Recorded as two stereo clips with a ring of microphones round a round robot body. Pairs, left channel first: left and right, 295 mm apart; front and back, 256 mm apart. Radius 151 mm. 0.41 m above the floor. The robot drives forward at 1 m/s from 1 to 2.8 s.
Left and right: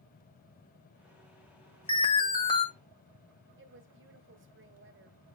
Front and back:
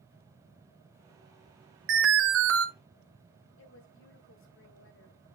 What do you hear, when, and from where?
1.9 s an alarm: 160° left, 1.7 m; by 2.6 s 165° left, 2.5 m
3.6 s a woman speaking: 40° right, 2.0 m